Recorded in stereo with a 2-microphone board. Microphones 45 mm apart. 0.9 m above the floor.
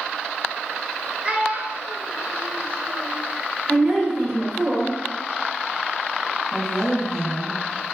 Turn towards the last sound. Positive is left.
turn(degrees=0)  # may be behind; listen again after turning